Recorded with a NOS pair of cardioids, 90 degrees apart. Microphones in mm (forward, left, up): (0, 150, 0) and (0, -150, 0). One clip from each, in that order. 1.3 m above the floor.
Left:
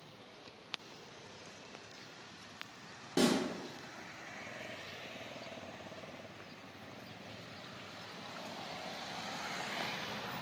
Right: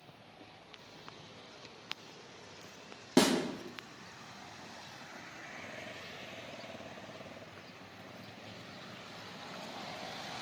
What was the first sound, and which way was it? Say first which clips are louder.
A snare drum: right 4 dB; 50° right.